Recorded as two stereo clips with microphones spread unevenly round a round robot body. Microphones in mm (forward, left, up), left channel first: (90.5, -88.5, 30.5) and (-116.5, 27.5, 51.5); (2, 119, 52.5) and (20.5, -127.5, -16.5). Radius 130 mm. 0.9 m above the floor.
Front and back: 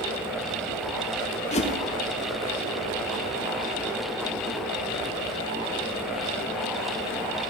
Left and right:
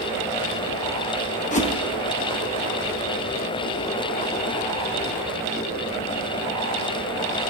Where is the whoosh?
25° left, 1.2 m.